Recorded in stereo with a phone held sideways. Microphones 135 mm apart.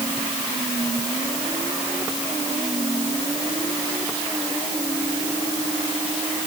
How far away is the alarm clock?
I don't hear an alarm clock.